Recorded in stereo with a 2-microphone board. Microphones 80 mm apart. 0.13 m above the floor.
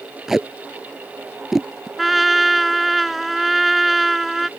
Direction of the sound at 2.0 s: Centre (ahead or behind).